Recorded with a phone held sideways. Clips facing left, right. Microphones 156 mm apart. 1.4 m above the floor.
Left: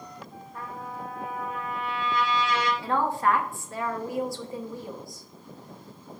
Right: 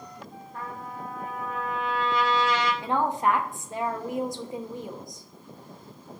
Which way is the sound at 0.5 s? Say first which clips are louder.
Even; 50° right (ahead or behind).